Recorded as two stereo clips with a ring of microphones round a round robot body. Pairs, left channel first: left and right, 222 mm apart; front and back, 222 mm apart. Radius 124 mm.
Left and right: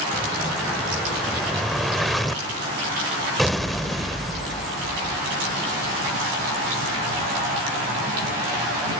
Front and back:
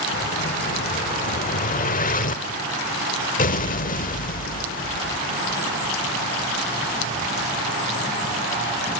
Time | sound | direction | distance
0.1 | an explosion | straight ahead | 0.9 m